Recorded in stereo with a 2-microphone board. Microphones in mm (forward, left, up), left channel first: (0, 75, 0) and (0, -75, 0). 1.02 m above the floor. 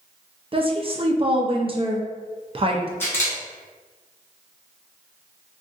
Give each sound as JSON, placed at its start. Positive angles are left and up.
{"t": 0.5, "sound": "a woman speaking", "side_deg": -40, "distance_m": 0.5}
{"t": 3.0, "sound": "a camera shutter", "side_deg": 15, "distance_m": 1.3}